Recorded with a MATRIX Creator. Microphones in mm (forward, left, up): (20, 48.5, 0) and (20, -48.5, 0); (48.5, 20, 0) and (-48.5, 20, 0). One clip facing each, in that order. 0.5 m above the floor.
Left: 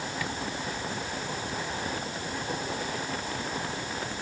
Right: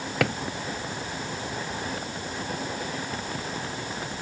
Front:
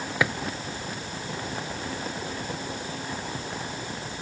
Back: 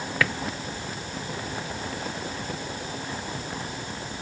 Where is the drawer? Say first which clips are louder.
Right 12 dB, front 1 dB; 70° right.